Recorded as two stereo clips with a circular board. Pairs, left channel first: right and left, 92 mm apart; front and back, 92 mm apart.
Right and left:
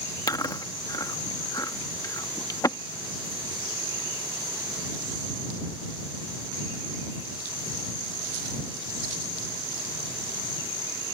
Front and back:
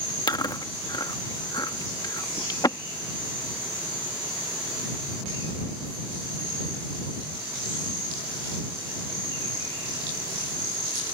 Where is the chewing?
45° right.